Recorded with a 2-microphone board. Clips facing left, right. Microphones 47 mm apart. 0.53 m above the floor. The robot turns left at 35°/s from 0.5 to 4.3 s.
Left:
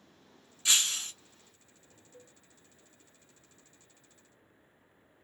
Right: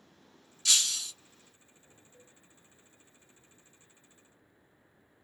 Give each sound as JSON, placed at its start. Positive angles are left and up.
{"t": 0.7, "sound": "breaking glass", "side_deg": 25, "distance_m": 0.9}
{"t": 2.1, "sound": "a cowbell", "side_deg": 20, "distance_m": 1.8}